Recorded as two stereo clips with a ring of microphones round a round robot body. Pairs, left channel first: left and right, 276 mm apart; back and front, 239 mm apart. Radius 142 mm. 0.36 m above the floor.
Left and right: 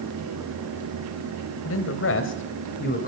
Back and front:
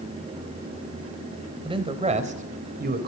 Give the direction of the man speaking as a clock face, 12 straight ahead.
10 o'clock.